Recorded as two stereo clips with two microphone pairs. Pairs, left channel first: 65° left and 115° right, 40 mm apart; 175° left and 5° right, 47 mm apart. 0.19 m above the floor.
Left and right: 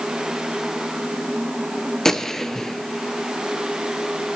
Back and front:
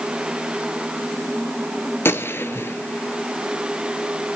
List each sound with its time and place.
2.0 s a gunshot: 145° left, 0.8 m